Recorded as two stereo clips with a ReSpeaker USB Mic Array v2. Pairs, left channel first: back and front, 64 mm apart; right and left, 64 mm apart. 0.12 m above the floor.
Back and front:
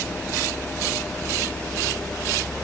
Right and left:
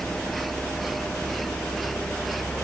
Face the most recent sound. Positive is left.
No sound to turn to.